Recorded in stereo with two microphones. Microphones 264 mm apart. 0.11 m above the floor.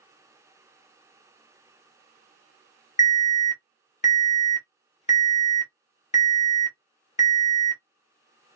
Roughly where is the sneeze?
No sneeze in this recording.